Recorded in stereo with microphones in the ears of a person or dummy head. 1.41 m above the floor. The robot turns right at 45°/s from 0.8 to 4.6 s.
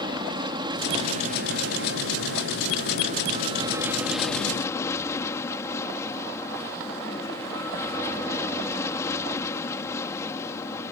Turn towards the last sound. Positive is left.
turn(degrees=20)